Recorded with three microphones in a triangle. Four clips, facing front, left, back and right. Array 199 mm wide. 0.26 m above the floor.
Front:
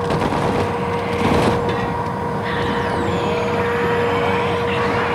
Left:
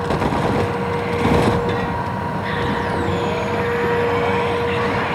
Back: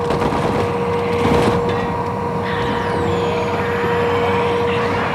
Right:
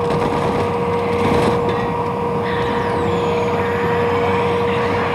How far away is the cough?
No cough in this recording.